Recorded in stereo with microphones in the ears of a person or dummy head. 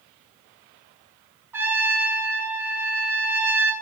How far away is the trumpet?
About 0.6 m.